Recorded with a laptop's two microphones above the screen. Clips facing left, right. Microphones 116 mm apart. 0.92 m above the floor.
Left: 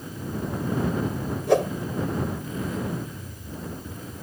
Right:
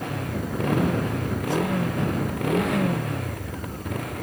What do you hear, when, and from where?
0.0 s a motorcycle: 80° right; by 4.2 s 75° right (ahead or behind)
1.5 s a whoosh: 80° left